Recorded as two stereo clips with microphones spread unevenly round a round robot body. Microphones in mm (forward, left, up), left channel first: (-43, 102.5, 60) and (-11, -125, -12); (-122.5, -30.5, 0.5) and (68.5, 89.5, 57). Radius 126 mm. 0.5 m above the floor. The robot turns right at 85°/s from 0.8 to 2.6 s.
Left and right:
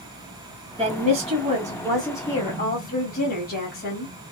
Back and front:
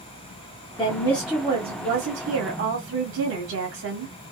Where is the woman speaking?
110° right, 1.7 m; by 4.1 s 40° left, 1.7 m.